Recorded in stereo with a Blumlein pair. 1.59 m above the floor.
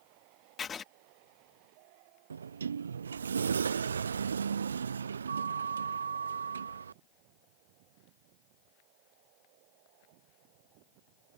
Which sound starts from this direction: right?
A sliding door, at 2.3 s.